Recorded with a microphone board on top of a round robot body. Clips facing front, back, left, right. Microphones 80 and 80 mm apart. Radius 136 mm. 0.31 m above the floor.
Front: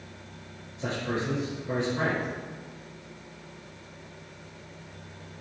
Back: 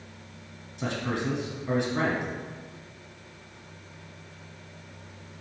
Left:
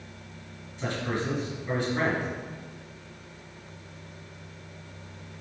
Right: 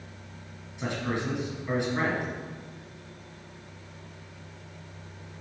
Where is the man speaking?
160° right, 3 m.